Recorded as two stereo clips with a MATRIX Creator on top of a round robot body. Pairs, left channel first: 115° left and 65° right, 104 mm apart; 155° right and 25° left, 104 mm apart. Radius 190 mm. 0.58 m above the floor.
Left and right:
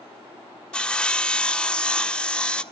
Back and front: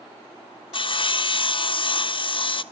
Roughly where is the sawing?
Behind.